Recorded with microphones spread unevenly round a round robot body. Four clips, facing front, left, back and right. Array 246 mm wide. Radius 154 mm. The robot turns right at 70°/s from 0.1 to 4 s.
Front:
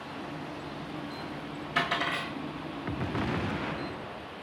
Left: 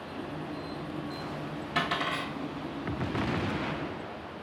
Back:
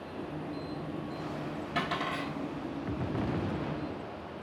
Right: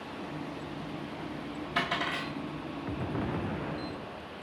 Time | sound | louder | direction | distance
1.8 | a dropped coin | left 2 dB, front 3 dB | 175° right | 1.1 m